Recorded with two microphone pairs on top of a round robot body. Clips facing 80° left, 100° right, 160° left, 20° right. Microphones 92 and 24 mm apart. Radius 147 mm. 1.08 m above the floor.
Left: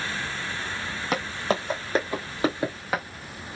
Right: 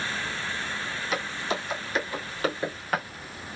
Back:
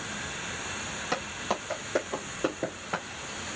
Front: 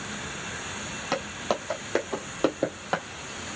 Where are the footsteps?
45° left, 2 m; by 3.0 s 5° left, 1.7 m.